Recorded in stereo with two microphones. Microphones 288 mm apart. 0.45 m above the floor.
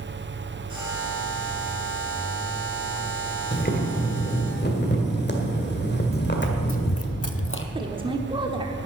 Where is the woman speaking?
15° right (ahead or behind), 0.9 m.